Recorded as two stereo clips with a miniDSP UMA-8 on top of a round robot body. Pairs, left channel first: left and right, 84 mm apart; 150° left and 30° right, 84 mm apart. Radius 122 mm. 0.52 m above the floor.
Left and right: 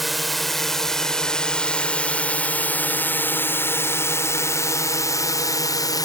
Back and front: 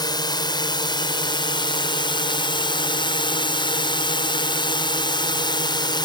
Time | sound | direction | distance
0.0 | a drone | straight behind | ?